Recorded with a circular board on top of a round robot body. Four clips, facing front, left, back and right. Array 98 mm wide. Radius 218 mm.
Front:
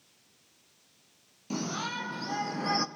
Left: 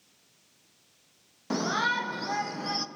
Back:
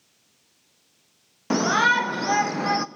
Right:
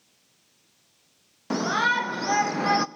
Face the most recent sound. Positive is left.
turn(degrees=-105)